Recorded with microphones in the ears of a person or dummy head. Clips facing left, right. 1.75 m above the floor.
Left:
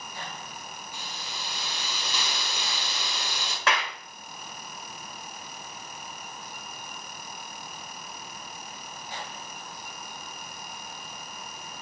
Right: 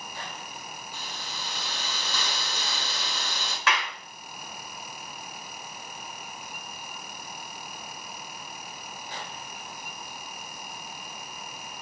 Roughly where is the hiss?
Left.